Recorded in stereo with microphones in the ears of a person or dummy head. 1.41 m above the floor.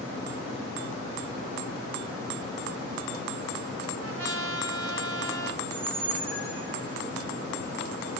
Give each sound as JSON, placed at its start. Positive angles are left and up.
{"t": 4.0, "sound": "a trumpet", "side_deg": -75, "distance_m": 3.0}
{"t": 5.6, "sound": "a squeak", "side_deg": -75, "distance_m": 8.0}